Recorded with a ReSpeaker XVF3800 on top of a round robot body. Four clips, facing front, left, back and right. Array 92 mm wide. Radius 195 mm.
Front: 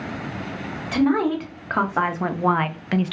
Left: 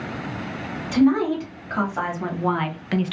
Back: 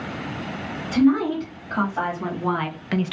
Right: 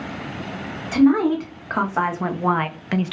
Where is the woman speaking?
30° right, 1.6 m; by 3.1 s 170° right, 0.6 m.